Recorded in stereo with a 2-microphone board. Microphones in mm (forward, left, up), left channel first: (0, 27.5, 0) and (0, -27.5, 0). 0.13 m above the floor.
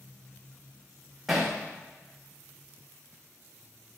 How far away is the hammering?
About 4 m.